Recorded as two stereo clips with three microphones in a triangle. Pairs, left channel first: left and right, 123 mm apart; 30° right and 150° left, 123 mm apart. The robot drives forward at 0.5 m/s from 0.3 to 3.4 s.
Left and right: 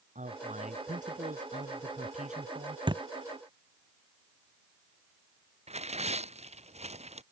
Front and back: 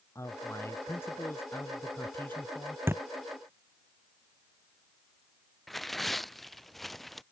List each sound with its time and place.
0.1 s a man speaking: 100° right; by 2.8 s 110° right
2.9 s a thud: 140° right
5.7 s tearing paper: 120° right